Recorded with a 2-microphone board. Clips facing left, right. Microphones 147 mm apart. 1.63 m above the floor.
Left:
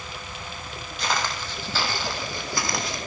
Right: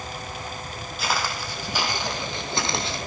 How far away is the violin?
No violin in this recording.